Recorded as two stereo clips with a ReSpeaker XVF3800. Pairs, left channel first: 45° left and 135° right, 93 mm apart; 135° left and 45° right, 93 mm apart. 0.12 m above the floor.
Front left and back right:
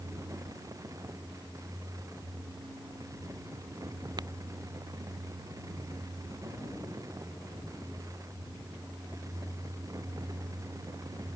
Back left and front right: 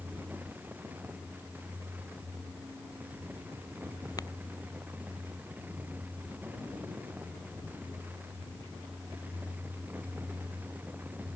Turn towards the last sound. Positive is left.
turn(degrees=-175)